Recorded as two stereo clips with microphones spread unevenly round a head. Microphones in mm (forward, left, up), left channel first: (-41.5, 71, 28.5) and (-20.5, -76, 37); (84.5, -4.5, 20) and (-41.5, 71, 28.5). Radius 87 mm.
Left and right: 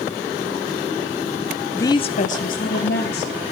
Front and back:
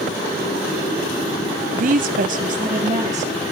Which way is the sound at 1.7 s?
Straight behind.